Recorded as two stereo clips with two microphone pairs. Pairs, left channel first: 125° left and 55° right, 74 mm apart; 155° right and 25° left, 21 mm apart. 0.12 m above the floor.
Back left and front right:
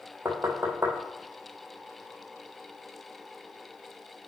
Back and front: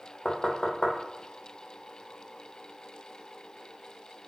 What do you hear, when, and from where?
0.2 s knocking: 105° right, 2.5 m